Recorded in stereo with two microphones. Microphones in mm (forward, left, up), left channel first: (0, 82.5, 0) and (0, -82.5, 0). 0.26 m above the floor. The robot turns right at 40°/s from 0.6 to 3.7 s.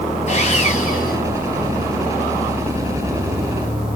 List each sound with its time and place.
0.3 s sawing: 45° left (ahead or behind), 3 m; by 1.2 s 70° left (ahead or behind), 3 m